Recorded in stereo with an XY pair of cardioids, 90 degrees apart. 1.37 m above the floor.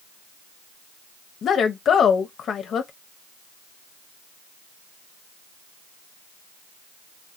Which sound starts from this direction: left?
A woman speaking, at 1.4 s.